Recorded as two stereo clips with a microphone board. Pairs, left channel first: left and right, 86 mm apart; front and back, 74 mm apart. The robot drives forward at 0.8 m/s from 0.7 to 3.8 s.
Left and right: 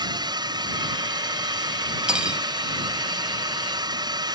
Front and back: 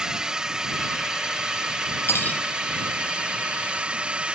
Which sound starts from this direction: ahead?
Cutlery clinking, at 2.1 s.